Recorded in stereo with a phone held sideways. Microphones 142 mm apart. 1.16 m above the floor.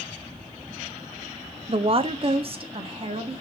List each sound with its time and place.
1.7 s a woman speaking: 40° right (ahead or behind), 0.5 m